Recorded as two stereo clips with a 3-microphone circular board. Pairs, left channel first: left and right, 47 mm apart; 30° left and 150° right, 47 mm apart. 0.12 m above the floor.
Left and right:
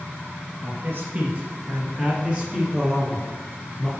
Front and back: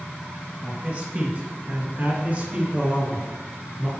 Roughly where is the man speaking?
Right.